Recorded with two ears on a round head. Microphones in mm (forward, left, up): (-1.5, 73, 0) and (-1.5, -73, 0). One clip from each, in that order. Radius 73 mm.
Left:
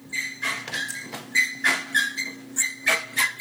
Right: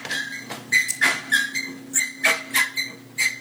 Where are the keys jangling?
25° right (ahead or behind), 0.9 m.